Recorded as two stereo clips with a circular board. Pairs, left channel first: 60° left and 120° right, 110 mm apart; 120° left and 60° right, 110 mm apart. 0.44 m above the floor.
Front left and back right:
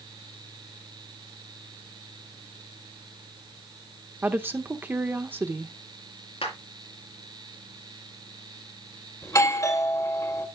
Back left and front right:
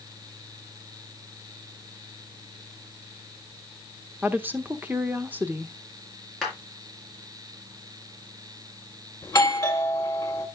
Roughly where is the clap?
Ahead left.